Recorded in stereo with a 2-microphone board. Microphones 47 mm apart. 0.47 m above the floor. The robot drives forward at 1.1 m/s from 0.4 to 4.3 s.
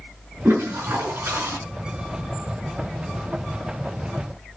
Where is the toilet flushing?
55° right (ahead or behind), 5 m; by 1.6 s 70° right (ahead or behind), 4.5 m.